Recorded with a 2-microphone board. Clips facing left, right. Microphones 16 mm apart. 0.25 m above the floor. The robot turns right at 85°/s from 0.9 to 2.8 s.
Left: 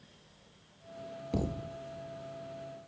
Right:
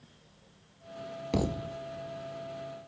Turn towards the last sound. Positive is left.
turn(degrees=-15)